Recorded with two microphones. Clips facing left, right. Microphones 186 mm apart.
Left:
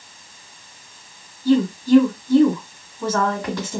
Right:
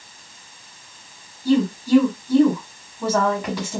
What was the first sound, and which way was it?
A woman speaking, 10° right (ahead or behind).